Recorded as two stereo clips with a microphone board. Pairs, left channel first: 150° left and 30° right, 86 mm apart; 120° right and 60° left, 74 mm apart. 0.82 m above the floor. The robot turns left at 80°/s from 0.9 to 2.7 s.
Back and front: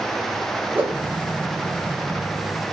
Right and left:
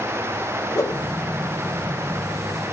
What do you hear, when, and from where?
0.8 s a whoosh: 90° right, 1.1 m; by 1.1 s 100° right, 1.1 m